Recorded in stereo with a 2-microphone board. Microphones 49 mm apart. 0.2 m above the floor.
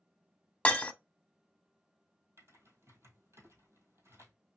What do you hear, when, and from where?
0.7 s breaking glass: 30° left (ahead or behind), 0.6 m
2.4 s typing on a keyboard: 75° right (ahead or behind), 1.8 m